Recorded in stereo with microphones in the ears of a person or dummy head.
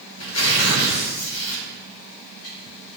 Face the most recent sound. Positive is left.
turn(degrees=75)  # may be behind; listen again after turning